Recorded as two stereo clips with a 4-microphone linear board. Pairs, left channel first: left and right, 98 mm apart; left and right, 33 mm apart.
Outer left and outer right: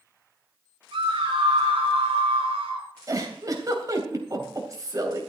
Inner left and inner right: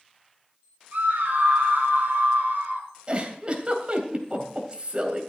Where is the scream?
75° right (ahead or behind), 3 m; by 2.9 s 85° right, 5 m.